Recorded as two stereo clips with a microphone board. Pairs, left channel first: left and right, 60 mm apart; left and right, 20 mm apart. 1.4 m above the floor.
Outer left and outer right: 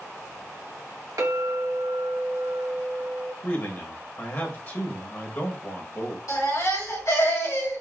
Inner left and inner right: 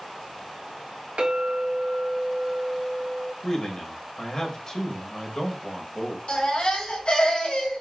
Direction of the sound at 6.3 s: 65° left (ahead or behind).